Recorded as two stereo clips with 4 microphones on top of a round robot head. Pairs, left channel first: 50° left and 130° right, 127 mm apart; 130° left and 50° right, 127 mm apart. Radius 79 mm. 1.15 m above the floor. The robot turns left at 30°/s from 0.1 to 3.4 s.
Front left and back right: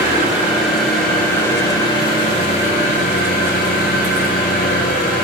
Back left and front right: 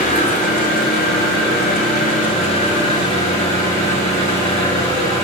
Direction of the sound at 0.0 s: 160° left.